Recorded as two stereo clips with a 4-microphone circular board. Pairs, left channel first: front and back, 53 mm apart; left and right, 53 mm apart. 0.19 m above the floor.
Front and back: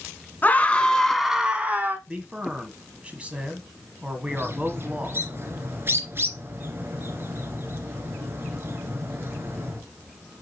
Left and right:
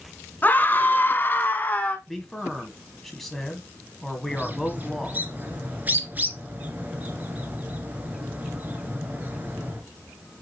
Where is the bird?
140° right, 2 m.